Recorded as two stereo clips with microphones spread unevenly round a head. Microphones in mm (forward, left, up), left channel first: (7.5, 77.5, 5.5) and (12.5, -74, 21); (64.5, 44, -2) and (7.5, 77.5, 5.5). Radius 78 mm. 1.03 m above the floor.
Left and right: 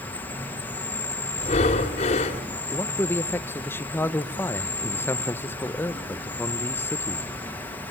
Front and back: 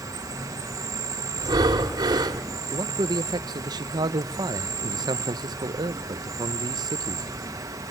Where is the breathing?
145° left, 1.7 m.